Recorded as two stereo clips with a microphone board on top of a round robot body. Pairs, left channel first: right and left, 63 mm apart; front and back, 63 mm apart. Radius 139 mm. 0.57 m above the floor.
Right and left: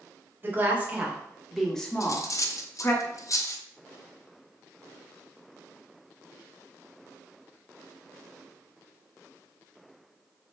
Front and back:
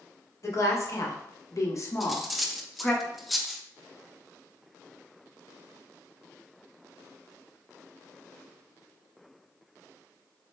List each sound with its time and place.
0.4 s a woman speaking: 35° left, 1.3 m; by 3.0 s 65° right, 1.1 m
2.0 s cutlery clinking: 90° right, 0.6 m